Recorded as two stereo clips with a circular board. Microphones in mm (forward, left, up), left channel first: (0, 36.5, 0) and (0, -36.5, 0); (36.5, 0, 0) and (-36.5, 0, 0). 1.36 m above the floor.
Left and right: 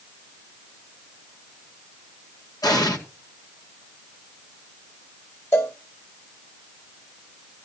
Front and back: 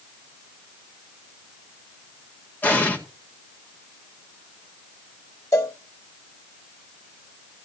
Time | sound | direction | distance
2.6 | an explosion | 65° left | 2 m
5.5 | a cowbell | 40° left | 1.8 m